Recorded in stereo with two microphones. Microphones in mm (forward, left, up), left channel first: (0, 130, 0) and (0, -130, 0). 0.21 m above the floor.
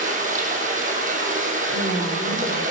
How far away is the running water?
About 4.5 m.